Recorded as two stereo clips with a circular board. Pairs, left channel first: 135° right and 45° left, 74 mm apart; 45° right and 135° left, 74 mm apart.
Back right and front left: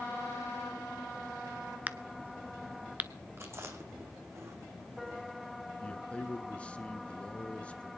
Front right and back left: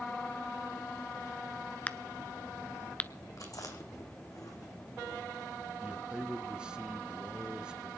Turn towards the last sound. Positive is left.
turn(degrees=-170)